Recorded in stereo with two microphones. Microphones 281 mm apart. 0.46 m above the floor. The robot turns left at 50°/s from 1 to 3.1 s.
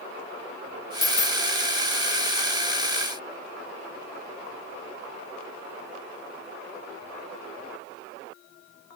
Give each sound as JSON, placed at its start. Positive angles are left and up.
{"t": 1.0, "sound": "a dropped coin", "side_deg": 70, "distance_m": 1.2}